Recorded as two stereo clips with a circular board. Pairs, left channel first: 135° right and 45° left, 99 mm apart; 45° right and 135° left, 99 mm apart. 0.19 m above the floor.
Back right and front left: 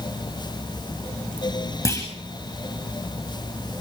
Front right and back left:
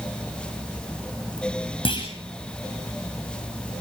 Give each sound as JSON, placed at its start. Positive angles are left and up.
{"t": 1.9, "sound": "a clunk", "azimuth_deg": -80, "distance_m": 7.0}